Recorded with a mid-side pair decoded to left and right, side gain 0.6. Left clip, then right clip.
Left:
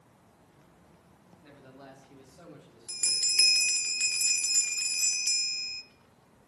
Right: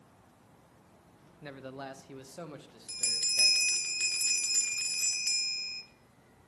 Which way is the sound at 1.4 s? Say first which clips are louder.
Right 9 dB; 55° right.